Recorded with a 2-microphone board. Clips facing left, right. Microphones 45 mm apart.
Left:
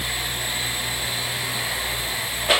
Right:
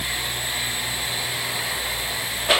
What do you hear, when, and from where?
Only background noise.